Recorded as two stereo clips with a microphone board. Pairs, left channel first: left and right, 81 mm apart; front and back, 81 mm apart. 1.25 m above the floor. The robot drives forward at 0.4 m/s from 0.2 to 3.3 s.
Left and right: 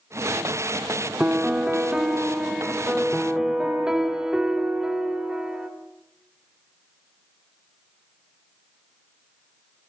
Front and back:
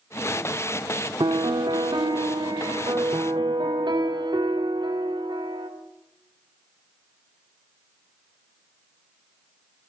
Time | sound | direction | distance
1.2 | a piano | 165° right | 1.6 m